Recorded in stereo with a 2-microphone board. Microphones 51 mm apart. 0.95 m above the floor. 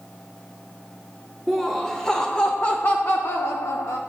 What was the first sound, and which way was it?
Laughter, centre (ahead or behind).